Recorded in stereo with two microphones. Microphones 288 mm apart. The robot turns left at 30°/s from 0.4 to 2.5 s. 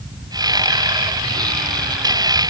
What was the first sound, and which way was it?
Only background noise.